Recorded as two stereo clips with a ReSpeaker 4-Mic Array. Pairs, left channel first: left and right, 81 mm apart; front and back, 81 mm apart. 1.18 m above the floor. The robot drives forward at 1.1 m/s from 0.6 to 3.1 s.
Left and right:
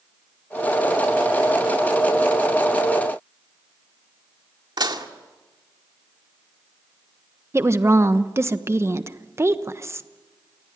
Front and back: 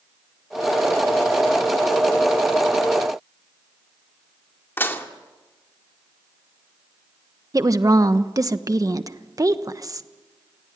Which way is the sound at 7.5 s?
140° right.